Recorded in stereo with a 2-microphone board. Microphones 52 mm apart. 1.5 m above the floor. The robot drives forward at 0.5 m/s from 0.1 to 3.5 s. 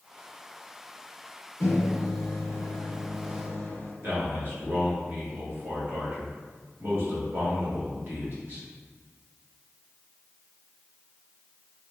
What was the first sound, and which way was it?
A microwave, 65° left (ahead or behind).